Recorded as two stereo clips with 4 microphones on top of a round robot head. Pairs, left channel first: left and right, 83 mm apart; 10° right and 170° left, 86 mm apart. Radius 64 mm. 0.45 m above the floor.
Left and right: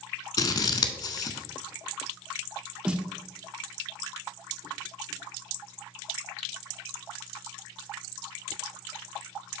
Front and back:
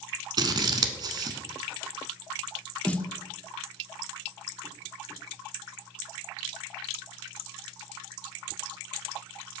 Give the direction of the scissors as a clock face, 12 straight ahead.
8 o'clock.